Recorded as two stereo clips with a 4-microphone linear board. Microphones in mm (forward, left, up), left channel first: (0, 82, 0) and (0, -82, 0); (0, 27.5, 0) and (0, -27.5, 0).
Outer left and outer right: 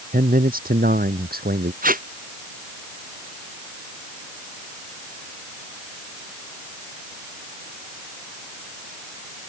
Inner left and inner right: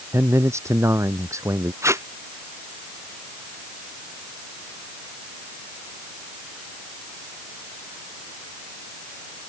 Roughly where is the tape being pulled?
Right.